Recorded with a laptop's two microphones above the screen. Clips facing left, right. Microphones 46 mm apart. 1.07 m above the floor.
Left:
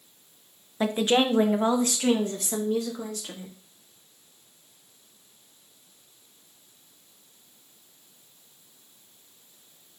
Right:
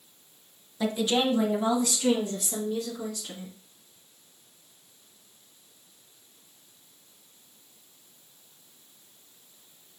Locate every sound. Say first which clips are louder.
0.8 s a woman speaking: left 3 dB; 30° left (ahead or behind), 0.6 m; by 3.5 s 40° left (ahead or behind), 2.5 m